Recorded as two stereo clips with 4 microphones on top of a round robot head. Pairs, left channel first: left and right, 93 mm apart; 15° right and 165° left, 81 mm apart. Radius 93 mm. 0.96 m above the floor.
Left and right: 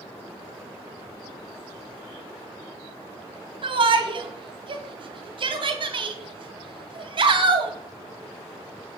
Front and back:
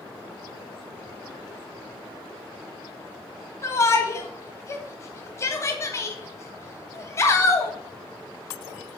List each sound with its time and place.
3.6 s a shout: 65° right, 1.7 m